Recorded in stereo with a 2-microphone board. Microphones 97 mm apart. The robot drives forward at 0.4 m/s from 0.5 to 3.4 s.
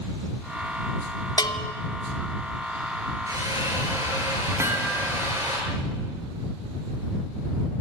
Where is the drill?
35° right (ahead or behind), 7.5 m.